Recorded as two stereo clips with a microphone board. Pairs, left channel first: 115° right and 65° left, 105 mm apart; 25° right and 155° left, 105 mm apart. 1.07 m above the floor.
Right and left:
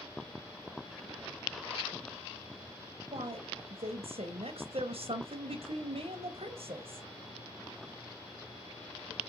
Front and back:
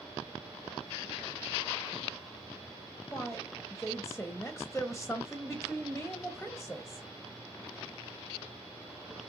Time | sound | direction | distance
3.1 | a woman speaking | 60° left | 0.5 m